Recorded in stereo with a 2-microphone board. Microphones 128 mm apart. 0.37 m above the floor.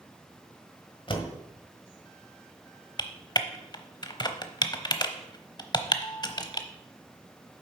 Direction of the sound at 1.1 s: 40° left (ahead or behind).